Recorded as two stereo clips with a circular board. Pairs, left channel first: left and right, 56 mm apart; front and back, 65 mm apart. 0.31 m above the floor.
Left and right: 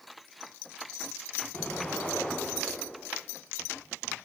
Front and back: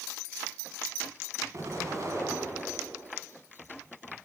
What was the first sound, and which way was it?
An explosion, 155° left.